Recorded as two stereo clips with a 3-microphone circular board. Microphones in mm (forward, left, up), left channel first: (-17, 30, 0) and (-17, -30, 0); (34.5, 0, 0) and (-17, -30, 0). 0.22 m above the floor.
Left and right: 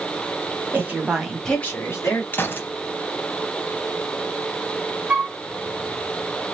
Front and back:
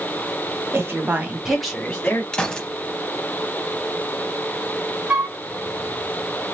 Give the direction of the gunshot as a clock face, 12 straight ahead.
9 o'clock.